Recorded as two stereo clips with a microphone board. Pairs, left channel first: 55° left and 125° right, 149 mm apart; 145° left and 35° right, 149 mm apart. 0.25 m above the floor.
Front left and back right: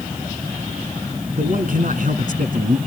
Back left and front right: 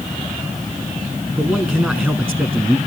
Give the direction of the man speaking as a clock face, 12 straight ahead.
4 o'clock.